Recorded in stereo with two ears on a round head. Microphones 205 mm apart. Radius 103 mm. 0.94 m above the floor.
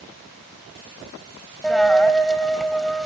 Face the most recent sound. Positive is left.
turn(degrees=0)  # may be behind; listen again after turning